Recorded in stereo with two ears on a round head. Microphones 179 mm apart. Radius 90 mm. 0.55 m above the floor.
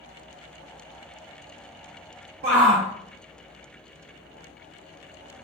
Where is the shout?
35° right (ahead or behind), 0.9 m.